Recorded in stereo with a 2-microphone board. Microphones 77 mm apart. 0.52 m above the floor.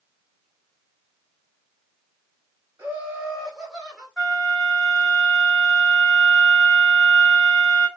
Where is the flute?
5° left (ahead or behind), 3 m.